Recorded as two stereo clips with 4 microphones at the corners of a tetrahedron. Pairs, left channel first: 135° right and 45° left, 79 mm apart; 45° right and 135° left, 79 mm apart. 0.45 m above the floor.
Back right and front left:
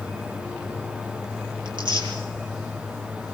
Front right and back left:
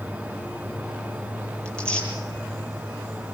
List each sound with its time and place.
1.6 s tearing paper: 35° left, 9 m